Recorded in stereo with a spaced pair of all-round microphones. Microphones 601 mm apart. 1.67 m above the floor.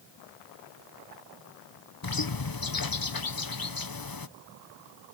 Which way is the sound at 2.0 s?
35° left (ahead or behind).